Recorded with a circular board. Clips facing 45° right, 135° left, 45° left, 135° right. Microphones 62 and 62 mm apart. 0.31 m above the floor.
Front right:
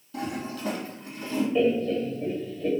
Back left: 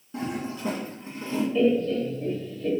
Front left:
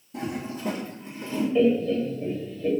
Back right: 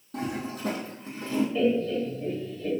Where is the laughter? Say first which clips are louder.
Back left 2 dB, front left 6 dB; 10° right, 1.2 m.